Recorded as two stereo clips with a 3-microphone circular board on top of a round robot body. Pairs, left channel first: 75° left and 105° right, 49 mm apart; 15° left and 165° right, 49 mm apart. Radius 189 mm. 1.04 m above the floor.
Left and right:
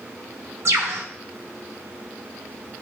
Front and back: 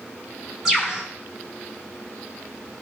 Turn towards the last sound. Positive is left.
turn(degrees=-85)